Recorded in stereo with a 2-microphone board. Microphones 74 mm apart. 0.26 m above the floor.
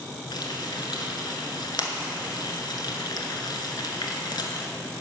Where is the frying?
80° left, 1.0 m.